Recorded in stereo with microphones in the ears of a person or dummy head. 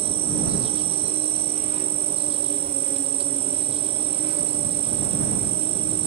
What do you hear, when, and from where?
0.0 s an insect: 30° right (ahead or behind)